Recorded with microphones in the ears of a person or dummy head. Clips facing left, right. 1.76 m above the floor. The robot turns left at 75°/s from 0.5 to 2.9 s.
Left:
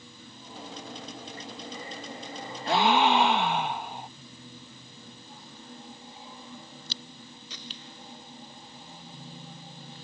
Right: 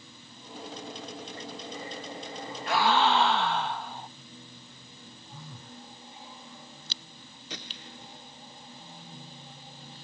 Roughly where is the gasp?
Left.